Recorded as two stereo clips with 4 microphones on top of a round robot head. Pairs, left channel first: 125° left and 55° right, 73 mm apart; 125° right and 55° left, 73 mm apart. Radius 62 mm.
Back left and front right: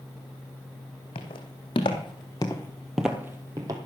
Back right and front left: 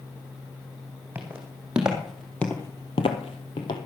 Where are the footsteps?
125° left, 2.5 m; by 3.8 s 95° right, 1.7 m.